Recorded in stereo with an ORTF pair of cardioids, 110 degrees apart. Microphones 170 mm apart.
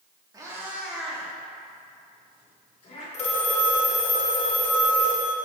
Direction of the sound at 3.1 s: 40° left.